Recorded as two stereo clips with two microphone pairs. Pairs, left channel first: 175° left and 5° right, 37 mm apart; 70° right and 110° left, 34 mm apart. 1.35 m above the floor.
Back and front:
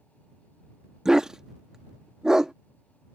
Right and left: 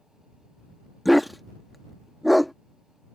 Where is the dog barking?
30° left.